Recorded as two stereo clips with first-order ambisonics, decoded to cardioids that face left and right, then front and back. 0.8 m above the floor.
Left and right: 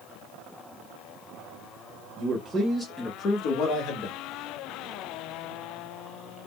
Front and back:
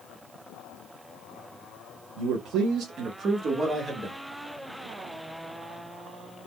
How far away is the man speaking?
About 0.8 m.